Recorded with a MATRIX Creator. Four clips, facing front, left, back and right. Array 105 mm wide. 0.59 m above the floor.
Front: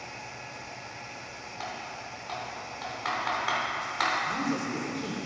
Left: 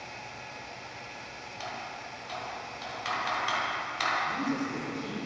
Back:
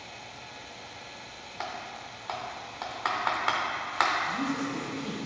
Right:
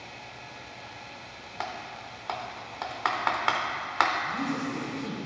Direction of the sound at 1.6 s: 110° right.